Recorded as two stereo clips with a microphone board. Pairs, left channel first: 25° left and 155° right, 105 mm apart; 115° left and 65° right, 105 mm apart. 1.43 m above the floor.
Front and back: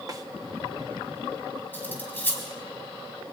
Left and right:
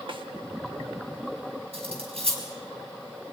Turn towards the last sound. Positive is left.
turn(degrees=-50)